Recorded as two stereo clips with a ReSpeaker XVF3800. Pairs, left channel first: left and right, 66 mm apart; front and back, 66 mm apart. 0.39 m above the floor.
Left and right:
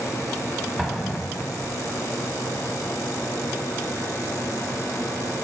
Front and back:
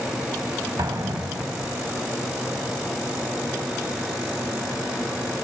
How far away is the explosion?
About 0.7 m.